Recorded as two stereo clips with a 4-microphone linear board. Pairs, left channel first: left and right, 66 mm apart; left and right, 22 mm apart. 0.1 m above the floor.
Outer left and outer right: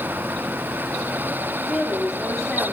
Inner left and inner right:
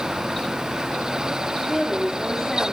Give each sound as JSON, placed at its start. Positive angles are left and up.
{"t": 1.7, "sound": "a woman speaking", "side_deg": 0, "distance_m": 9.5}